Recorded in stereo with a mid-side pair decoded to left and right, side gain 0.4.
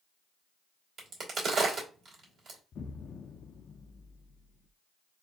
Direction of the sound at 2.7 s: 60° left.